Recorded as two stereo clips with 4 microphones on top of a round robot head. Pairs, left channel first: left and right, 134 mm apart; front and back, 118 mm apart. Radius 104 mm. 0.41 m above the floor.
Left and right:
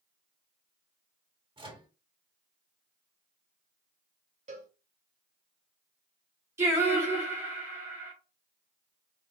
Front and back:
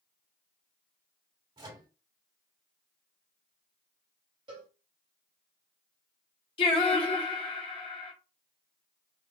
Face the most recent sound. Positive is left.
turn(degrees=-25)